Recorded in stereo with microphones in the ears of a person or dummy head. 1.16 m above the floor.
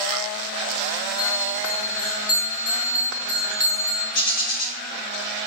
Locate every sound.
1.2 s a bell: 20° left (ahead or behind), 1.1 m
4.1 s a bird: 75° left (ahead or behind), 4 m